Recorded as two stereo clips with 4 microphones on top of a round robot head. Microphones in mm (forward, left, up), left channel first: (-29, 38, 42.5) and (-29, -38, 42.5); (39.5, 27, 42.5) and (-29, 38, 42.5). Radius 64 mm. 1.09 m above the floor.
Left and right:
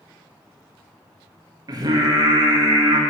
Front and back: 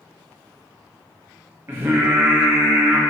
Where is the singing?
125° right, 0.8 m.